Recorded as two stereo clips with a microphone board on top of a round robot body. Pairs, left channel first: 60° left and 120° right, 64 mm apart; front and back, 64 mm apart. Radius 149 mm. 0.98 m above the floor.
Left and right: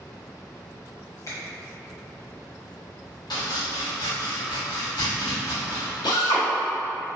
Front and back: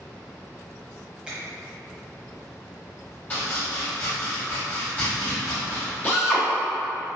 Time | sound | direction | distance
1.3 | a finger snap | 105° left | 1.1 m
3.3 | chopping | 70° left | 0.9 m
6.0 | a drill | 65° left | 0.9 m